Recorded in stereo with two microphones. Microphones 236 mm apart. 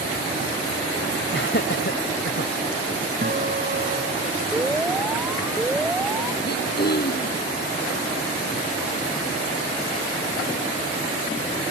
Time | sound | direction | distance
1.3 | laughter | 50° left (ahead or behind) | ?
3.2 | a guitar | 40° right (ahead or behind) | ?
4.5 | an alarm | 5° right (ahead or behind) | ?
6.4 | throat clearing | 40° left (ahead or behind) | ?